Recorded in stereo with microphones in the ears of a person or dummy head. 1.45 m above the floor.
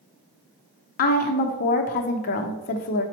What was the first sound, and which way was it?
A woman speaking, 45° left (ahead or behind).